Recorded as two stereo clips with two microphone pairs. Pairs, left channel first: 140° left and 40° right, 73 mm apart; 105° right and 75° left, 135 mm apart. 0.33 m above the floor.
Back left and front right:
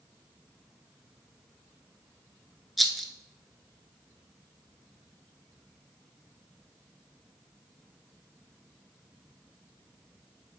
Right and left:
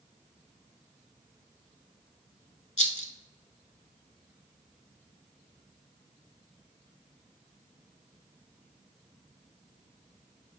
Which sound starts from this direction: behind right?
A rattle, at 2.8 s.